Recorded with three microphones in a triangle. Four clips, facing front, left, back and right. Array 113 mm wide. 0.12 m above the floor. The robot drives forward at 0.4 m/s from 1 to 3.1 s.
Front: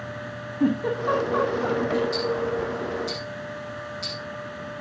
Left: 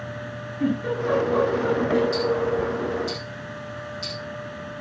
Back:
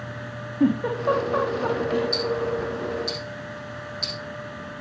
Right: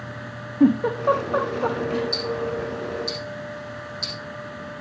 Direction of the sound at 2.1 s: 170° right.